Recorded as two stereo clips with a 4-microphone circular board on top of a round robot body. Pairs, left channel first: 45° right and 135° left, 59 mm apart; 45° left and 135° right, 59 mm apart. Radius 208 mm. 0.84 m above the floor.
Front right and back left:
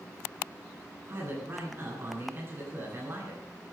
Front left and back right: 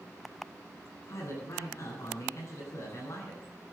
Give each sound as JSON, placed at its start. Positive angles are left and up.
{"t": 1.1, "sound": "a man speaking", "azimuth_deg": 80, "distance_m": 10.0}